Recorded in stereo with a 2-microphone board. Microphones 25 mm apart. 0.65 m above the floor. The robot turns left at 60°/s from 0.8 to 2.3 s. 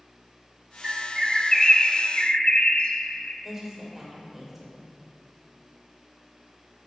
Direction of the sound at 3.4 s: 15° right (ahead or behind).